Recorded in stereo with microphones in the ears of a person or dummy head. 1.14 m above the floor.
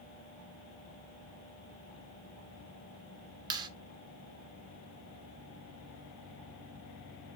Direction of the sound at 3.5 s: 25° right (ahead or behind).